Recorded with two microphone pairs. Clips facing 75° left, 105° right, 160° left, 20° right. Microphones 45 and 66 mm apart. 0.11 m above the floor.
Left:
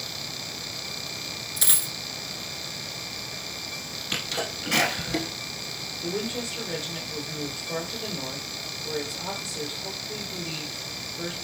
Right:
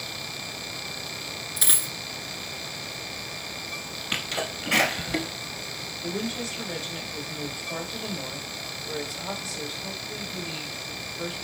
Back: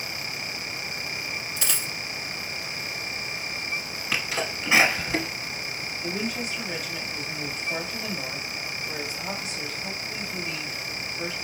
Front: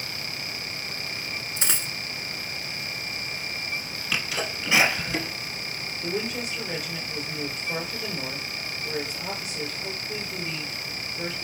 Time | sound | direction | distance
1.6 | a dropped coin | 30° right | 0.8 m
4.1 | a sneeze | 155° right | 1.1 m
6.0 | a woman speaking | 20° left | 2.5 m